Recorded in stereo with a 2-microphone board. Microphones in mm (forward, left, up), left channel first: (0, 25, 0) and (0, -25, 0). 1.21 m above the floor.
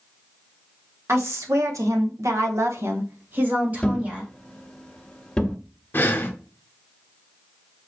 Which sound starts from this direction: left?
Breathing, at 5.9 s.